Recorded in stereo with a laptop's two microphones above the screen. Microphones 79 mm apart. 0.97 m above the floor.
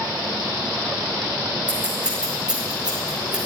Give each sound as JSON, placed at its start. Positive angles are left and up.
{"t": 1.7, "sound": "scissors", "side_deg": -15, "distance_m": 4.5}